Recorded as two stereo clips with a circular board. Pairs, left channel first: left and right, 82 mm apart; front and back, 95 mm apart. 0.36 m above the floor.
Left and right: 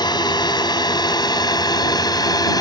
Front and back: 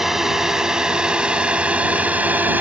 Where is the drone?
95° left; by 2.6 s 110° left.